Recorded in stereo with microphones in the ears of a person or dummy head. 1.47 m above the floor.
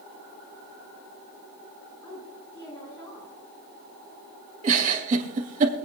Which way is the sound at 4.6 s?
40° right (ahead or behind).